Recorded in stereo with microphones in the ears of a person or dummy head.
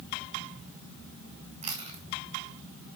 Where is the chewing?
35° right (ahead or behind), 2 m.